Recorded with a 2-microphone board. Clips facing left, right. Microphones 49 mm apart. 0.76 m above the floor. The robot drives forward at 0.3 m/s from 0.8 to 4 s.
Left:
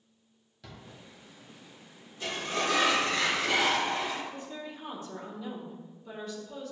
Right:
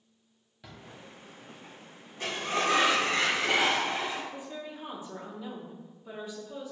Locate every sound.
0.6 s a drawer: 15° right (ahead or behind), 1.1 m
2.2 s a sliding door: 50° right (ahead or behind), 0.9 m; by 4.2 s 30° right (ahead or behind), 1.3 m
4.3 s a woman speaking: 15° right (ahead or behind), 1.2 m